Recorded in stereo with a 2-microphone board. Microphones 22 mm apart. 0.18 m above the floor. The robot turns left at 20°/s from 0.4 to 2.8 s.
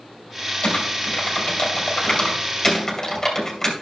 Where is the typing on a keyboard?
60° left (ahead or behind), 2.5 m; by 3.7 s 20° left (ahead or behind), 2.5 m.